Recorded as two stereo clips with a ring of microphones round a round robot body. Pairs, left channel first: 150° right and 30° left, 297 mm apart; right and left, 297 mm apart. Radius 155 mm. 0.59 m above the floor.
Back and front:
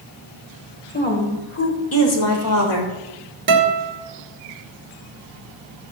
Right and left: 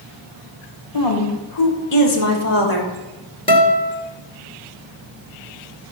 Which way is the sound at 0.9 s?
85° right.